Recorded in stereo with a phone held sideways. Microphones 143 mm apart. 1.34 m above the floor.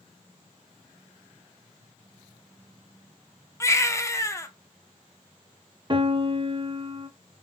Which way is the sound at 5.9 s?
35° right (ahead or behind).